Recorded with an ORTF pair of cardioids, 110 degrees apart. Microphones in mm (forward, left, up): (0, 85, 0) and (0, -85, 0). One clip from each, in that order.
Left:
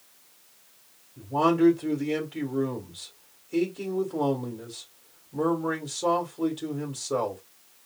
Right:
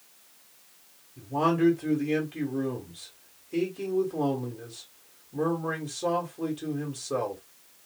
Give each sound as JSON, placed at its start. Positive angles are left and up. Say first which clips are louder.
{"t": 1.2, "sound": "a man speaking", "louder": "left 3 dB", "azimuth_deg": 5, "distance_m": 1.3}